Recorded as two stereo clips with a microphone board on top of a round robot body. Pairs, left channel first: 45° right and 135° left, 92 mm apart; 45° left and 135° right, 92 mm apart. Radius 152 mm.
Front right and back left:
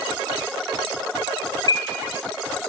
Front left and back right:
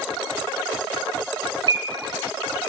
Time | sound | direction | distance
1.7 | a bird | 90° right | 0.5 m